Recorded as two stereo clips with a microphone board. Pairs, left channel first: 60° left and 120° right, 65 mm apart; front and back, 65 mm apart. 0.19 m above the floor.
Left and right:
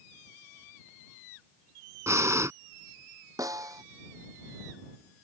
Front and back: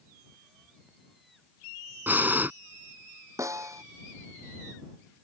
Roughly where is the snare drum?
Behind right.